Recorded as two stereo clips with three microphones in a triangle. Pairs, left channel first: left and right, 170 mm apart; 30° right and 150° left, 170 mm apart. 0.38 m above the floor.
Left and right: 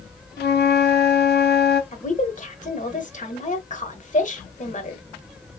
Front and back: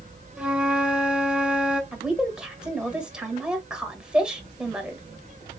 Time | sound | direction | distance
0.4 | a flute | 65° left | 0.7 m
1.9 | a woman speaking | 65° left | 1.2 m